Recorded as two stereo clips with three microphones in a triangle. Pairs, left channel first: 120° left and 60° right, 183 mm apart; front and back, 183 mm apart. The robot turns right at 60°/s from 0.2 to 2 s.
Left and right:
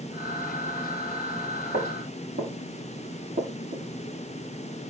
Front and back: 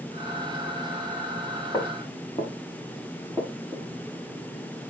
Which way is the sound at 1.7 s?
75° right.